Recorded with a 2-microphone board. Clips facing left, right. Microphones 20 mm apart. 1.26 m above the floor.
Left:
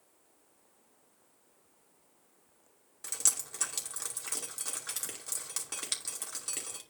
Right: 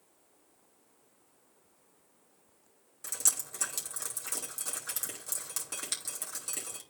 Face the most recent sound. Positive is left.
turn(degrees=15)  # may be behind; listen again after turning